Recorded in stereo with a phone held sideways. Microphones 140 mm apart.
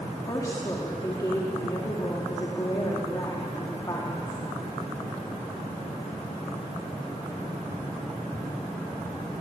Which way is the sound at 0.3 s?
25° left (ahead or behind).